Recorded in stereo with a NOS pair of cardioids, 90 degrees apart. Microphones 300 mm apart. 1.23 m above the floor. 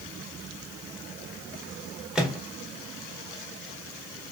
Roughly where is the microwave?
Ahead.